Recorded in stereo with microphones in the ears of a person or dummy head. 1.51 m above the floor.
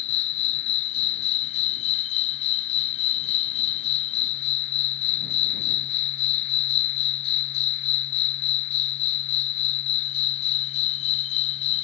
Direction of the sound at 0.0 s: 35° left (ahead or behind).